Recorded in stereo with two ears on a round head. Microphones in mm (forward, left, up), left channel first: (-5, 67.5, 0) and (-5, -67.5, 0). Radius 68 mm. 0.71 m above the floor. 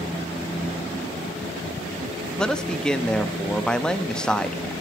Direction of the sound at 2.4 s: 5° left (ahead or behind).